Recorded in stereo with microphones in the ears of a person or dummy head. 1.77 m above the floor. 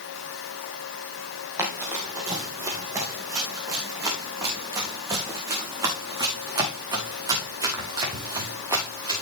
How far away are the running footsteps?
About 2.5 m.